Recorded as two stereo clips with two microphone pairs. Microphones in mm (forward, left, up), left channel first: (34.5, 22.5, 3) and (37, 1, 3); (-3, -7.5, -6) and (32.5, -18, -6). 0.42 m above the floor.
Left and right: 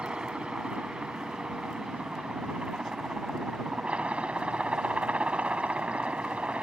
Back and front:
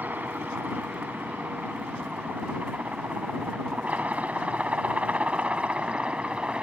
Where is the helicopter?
45° right; by 6.6 s 75° right.